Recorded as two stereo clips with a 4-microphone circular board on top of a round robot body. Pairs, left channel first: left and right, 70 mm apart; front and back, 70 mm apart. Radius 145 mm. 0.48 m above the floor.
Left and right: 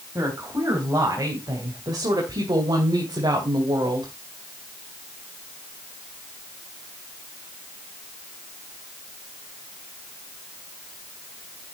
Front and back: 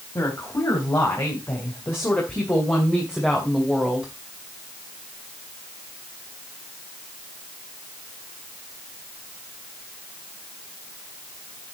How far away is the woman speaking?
About 3.5 m.